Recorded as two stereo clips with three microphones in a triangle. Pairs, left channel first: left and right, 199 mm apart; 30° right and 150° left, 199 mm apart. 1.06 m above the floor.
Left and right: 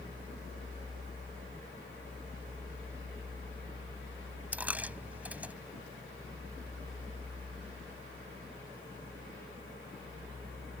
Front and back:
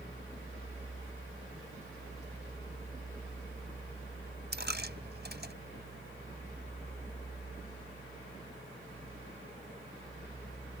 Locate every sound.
4.5 s a dropped coin: 175° right